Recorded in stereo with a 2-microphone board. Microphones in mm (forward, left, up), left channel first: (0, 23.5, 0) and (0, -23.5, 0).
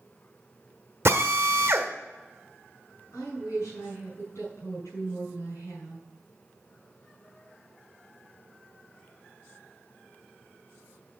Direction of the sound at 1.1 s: 65° right (ahead or behind).